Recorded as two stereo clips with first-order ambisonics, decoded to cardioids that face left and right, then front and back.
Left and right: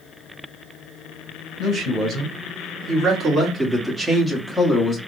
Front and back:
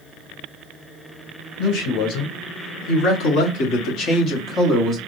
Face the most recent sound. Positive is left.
turn(degrees=50)